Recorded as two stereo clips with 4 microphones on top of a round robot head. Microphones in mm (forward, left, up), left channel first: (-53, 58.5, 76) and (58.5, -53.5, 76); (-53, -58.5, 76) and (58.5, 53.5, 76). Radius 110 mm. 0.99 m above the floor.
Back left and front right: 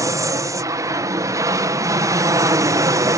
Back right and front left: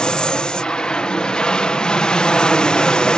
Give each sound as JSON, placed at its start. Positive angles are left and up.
{"t": 0.0, "sound": "an aircraft", "azimuth_deg": -60}